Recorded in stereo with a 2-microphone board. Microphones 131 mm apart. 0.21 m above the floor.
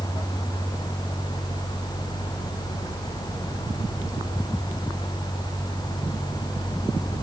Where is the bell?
No bell in this recording.